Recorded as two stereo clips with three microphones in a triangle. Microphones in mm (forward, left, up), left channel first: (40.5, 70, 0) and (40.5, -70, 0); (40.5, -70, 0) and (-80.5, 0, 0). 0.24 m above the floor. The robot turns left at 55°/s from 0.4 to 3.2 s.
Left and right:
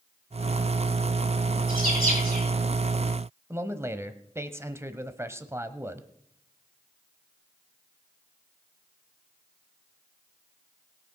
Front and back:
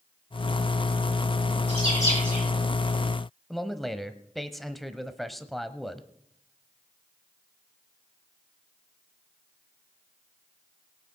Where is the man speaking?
115° right, 1.0 m.